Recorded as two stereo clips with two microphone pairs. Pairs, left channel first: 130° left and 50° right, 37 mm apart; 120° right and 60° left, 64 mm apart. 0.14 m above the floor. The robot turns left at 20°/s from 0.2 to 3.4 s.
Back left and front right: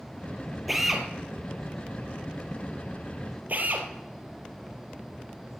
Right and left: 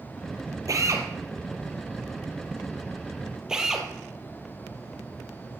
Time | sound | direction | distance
0.7 | a drill | 35° left | 2.5 m